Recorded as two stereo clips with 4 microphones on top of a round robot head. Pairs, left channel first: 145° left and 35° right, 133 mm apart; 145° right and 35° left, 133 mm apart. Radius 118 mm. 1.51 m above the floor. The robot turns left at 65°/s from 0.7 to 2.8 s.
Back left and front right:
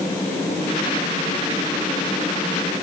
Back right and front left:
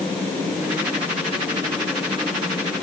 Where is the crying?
I don't hear crying.